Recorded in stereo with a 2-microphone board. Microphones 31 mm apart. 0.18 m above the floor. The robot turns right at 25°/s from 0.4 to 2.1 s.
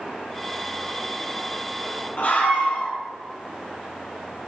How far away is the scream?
About 1.4 m.